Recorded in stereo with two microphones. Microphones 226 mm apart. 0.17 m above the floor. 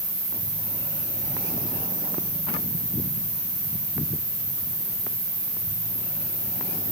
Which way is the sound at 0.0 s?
55° left (ahead or behind).